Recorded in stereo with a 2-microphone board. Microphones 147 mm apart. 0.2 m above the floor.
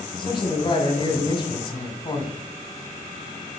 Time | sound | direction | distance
0.2 | a man speaking | 35° left (ahead or behind) | 1.4 m